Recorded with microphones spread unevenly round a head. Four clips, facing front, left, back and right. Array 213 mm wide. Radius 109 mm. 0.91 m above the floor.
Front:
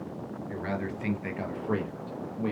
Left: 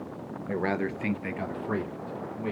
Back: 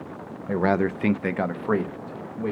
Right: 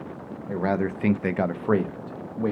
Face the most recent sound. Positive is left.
turn(degrees=-85)